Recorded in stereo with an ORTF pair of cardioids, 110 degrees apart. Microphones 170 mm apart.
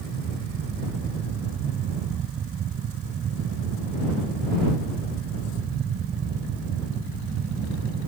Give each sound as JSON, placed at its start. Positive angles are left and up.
{"t": 0.0, "sound": "a fan", "azimuth_deg": -50}